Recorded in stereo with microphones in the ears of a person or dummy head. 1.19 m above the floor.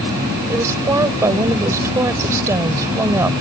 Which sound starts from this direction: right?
A woman speaking, at 0.5 s.